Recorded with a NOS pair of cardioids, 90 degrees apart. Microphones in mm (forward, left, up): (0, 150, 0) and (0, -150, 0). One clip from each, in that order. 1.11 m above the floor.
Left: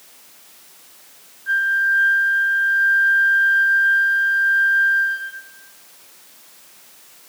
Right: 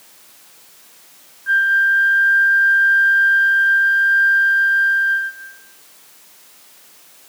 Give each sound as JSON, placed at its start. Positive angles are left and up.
{"t": 1.5, "sound": "a flute", "azimuth_deg": -20, "distance_m": 3.5}